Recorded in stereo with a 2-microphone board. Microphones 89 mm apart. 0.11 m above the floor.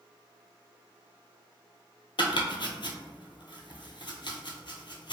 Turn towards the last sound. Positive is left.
turn(degrees=60)  # may be behind; listen again after turning